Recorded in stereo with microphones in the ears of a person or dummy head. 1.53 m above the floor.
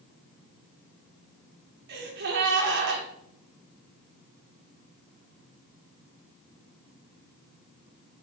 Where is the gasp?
60° right (ahead or behind), 1.9 m.